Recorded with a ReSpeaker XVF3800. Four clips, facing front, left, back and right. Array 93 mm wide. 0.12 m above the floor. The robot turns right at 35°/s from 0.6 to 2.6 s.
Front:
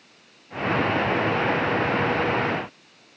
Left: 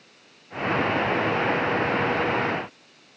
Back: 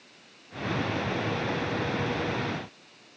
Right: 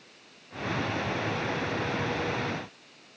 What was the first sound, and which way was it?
Only background noise.